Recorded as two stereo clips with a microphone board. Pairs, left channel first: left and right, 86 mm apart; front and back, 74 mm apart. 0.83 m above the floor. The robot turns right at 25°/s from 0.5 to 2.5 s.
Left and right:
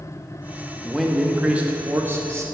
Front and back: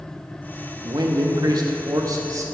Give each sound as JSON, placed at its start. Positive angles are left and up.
{"t": 0.8, "sound": "a man speaking", "azimuth_deg": 180, "distance_m": 0.9}